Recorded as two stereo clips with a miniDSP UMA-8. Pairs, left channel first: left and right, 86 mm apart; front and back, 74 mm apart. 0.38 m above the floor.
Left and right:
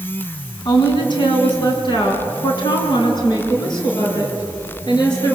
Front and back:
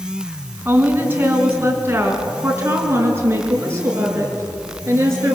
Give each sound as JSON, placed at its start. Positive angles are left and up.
{"t": 0.7, "sound": "a woman speaking", "azimuth_deg": 115, "distance_m": 3.5}